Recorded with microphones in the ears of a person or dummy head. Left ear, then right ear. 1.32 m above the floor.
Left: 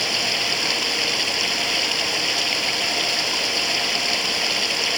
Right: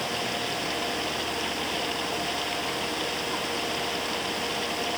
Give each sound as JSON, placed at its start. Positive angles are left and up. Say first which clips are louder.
{"t": 0.0, "sound": "running water", "louder": "left 8 dB", "side_deg": 40}